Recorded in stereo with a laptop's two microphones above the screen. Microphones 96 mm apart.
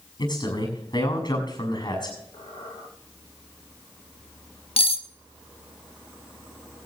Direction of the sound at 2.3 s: 80° left.